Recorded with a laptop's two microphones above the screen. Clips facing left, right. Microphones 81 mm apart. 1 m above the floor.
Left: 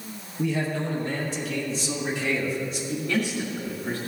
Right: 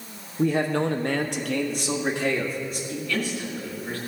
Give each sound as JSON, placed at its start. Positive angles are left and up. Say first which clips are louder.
{"t": 0.4, "sound": "a man speaking", "louder": "right 4 dB", "side_deg": -35, "distance_m": 0.6}
{"t": 2.9, "sound": "a man speaking", "louder": "left 2 dB", "side_deg": 20, "distance_m": 1.8}